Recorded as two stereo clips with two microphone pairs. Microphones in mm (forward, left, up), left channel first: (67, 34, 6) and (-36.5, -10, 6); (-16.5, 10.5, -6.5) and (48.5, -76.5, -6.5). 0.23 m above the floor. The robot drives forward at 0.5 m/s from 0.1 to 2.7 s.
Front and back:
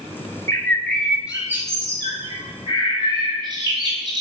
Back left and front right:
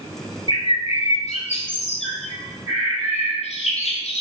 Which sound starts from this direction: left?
A bird, at 0.5 s.